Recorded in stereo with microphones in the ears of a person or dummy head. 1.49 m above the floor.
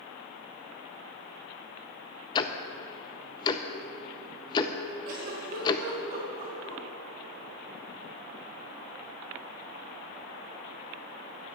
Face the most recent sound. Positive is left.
turn(degrees=-50)  # may be behind; listen again after turning